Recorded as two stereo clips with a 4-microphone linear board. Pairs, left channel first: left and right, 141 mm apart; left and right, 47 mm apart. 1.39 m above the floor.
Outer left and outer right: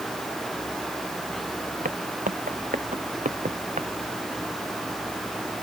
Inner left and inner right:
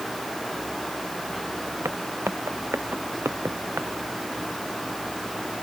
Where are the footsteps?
75° right (ahead or behind); by 3.9 s 60° right (ahead or behind).